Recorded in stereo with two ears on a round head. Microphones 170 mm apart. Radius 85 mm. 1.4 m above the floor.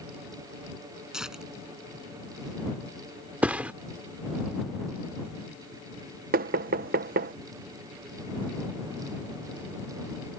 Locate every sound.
1.1 s tearing paper: 5° right (ahead or behind)
3.4 s a thud: 10° right (ahead or behind)
6.3 s knocking: 50° right (ahead or behind)